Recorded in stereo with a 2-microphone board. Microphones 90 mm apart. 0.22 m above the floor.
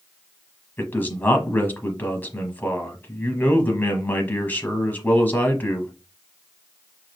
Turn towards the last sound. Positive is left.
turn(degrees=20)  # may be behind; listen again after turning